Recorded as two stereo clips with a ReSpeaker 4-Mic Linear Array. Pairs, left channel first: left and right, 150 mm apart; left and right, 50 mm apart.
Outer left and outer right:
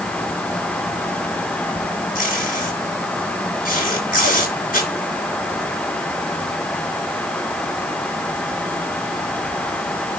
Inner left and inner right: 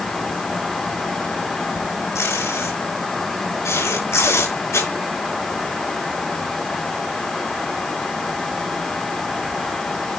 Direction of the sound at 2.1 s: 75° left (ahead or behind).